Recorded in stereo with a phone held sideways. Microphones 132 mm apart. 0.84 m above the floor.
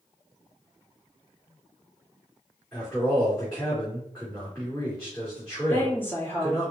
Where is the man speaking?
10° left (ahead or behind), 2.5 m.